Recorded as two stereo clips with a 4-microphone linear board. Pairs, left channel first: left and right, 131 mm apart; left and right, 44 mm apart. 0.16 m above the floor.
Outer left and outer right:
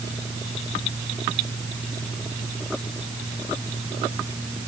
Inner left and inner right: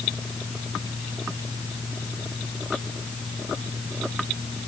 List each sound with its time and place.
Only background noise.